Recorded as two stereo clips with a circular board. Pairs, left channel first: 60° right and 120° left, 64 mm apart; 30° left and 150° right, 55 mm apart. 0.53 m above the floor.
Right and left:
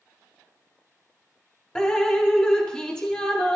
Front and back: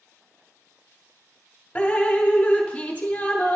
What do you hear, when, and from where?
1.8 s dripping: straight ahead, 1.0 m